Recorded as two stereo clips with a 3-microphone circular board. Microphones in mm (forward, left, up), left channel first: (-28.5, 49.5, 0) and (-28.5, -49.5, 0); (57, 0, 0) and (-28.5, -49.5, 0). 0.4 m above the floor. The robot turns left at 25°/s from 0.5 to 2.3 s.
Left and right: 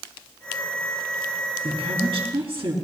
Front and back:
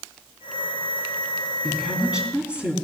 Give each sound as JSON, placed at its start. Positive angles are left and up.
{"t": 1.6, "sound": "a woman speaking", "azimuth_deg": -55, "distance_m": 3.5}